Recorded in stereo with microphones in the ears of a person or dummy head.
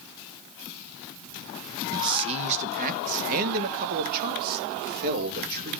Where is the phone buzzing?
No phone buzzing in this recording.